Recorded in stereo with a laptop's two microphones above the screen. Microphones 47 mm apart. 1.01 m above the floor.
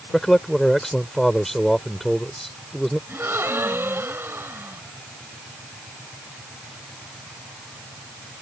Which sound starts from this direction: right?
A gasp, at 3.1 s.